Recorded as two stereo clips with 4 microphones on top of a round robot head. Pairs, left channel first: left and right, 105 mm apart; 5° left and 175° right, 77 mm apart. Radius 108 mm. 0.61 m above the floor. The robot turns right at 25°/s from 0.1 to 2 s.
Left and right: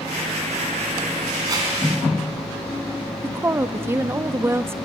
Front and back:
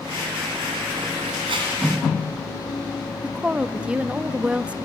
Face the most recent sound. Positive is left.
turn(degrees=-120)